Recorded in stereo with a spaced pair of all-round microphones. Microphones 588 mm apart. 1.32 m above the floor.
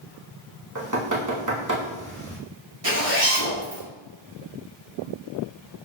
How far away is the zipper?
About 1.8 m.